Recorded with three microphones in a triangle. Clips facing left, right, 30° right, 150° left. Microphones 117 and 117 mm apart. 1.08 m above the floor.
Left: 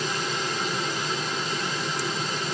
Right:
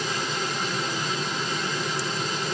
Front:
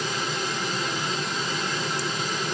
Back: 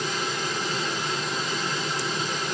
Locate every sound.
Only background noise.